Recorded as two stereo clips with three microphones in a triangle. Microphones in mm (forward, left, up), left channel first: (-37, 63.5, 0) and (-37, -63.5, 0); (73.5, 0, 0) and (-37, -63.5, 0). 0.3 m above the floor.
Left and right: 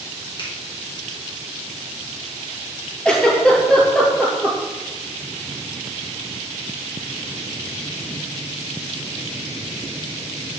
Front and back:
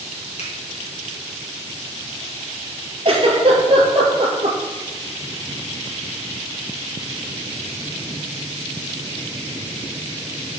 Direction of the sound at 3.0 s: 175° left.